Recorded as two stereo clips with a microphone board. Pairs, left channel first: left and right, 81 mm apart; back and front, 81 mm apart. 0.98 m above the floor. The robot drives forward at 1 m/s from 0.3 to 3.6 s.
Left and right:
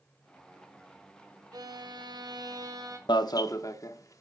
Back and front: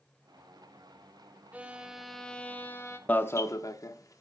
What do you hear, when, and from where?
1.5 s a violin: 65° right, 1.5 m; by 3.0 s 125° right, 1.7 m
3.1 s an alarm: 110° left, 0.9 m; by 4.2 s 135° left, 1.1 m